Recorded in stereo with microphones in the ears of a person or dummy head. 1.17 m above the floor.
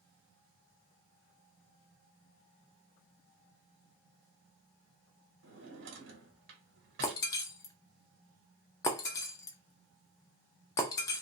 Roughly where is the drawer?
Right.